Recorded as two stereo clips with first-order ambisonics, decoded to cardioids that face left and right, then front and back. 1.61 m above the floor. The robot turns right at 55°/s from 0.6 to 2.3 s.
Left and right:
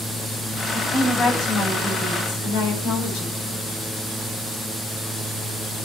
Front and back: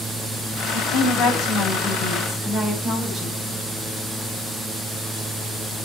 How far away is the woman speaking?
About 8.5 m.